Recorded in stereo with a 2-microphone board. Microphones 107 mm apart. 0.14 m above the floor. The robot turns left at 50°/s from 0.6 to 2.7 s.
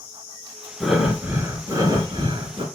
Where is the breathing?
5° left, 2.5 m; by 2.6 s 90° right, 2.5 m.